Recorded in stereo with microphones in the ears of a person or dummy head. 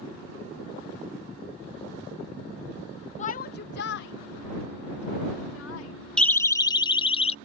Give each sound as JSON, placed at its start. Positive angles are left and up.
{"t": 3.2, "sound": "a shout", "side_deg": 40}
{"t": 6.2, "sound": "a siren", "side_deg": 5}